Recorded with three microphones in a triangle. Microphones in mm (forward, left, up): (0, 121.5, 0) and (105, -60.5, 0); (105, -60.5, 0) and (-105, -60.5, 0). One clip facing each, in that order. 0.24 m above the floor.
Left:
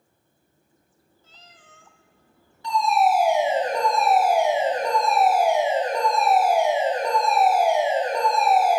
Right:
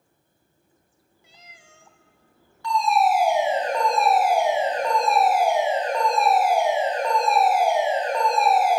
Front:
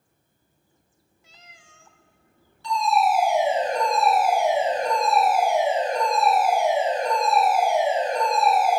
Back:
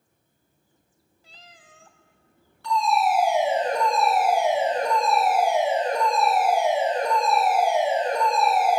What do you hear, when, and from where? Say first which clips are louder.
1.2 s a cat meowing: right 1 dB, back 3 dB; 135° right, 0.7 m
2.6 s a fire alarm: even, front 1 dB; 175° right, 4.5 m